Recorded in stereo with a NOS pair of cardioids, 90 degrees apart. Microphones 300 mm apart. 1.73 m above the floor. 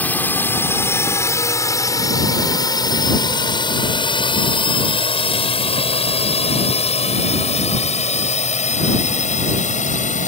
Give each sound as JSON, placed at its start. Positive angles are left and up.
{"t": 0.0, "sound": "a drone", "azimuth_deg": 5}